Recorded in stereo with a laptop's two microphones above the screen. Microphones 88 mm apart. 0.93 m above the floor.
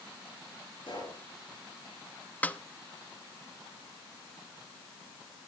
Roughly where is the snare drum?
Centre.